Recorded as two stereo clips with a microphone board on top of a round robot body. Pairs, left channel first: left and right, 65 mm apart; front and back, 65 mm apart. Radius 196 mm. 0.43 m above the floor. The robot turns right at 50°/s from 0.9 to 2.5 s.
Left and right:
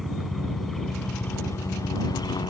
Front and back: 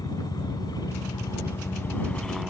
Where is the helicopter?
Straight ahead; by 2.5 s 90° left.